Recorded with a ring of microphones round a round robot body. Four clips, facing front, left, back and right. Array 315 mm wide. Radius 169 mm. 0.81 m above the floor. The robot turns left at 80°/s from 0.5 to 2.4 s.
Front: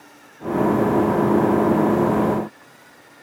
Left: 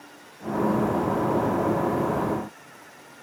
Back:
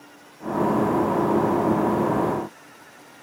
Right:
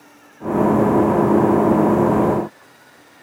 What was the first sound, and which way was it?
Only background noise.